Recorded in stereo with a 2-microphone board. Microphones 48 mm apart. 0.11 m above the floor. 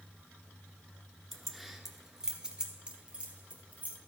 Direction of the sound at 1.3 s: 5° left (ahead or behind).